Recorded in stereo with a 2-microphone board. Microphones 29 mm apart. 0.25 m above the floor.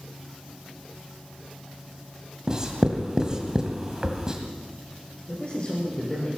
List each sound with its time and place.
2.5 s writing: 25° right (ahead or behind), 1.9 m
5.3 s a man speaking: 35° left (ahead or behind), 9.5 m